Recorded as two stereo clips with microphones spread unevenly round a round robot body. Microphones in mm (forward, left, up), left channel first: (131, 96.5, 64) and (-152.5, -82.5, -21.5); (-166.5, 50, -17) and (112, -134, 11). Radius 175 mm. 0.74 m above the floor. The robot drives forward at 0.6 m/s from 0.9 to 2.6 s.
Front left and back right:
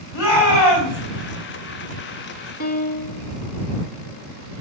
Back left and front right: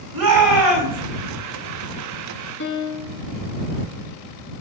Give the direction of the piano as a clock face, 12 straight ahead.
9 o'clock.